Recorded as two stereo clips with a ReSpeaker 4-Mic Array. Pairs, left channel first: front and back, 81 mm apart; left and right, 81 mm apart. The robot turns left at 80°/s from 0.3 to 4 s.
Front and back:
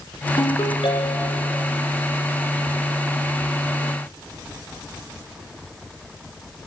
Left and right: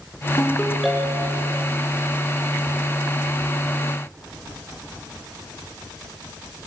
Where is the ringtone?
35° left, 3 m; by 1.4 s 50° right, 3 m.